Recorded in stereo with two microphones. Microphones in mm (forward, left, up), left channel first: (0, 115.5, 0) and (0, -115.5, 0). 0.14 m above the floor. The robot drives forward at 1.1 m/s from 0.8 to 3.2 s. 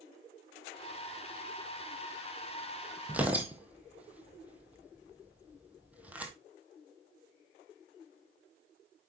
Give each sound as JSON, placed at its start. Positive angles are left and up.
{"t": 3.1, "sound": "tearing paper", "side_deg": -5, "distance_m": 1.1}